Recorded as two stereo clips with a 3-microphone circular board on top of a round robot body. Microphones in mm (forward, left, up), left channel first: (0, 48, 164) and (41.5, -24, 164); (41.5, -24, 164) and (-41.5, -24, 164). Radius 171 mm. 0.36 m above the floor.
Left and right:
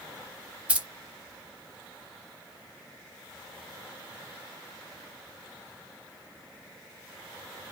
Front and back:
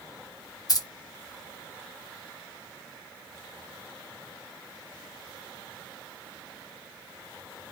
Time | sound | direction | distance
0.7 | keys jangling | 10° left | 0.8 m